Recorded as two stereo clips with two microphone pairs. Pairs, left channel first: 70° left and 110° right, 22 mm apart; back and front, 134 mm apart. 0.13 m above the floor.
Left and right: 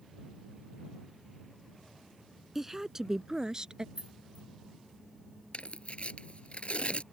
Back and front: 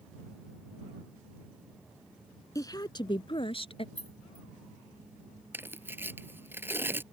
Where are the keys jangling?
140° right.